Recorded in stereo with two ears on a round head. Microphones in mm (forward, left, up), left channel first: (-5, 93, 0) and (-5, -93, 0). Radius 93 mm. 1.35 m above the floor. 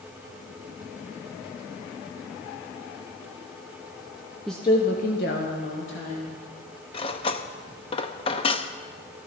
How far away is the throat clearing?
No throat clearing in this recording.